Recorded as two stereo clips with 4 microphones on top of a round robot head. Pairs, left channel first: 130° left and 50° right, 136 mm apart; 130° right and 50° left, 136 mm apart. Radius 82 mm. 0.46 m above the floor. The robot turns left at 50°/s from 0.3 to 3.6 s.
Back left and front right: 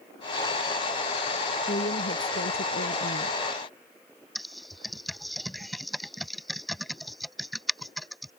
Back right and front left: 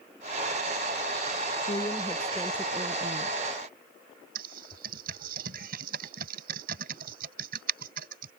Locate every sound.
1.7 s a woman speaking: 175° left; by 3.4 s 90° left
4.3 s typing on a keyboard: 40° left